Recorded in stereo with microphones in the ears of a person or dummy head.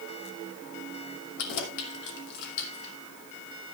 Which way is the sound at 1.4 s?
60° left (ahead or behind).